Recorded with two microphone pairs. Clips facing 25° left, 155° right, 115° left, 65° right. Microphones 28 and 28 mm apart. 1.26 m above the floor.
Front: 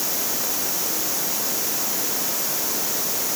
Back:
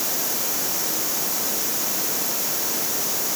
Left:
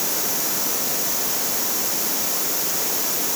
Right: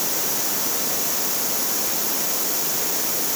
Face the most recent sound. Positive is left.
No sound to turn to.